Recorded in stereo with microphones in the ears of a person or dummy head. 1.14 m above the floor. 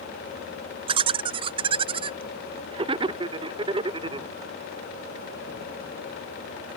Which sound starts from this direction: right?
Laughter, at 0.9 s.